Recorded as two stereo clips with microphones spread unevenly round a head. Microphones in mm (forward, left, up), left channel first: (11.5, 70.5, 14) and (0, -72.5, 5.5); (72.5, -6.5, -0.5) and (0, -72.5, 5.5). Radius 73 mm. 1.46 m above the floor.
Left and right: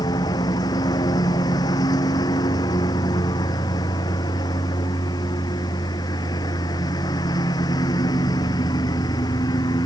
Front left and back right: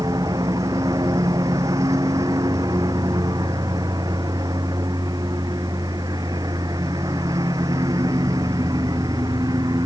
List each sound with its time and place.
0.0 s a lawn mower: 150° left